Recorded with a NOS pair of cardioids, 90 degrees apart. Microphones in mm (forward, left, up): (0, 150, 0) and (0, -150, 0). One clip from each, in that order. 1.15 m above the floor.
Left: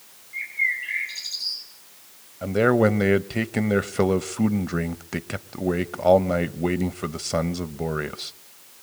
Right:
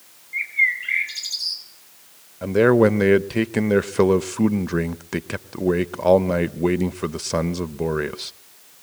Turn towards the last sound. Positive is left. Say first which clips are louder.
# right 4 dB
turn(degrees=-10)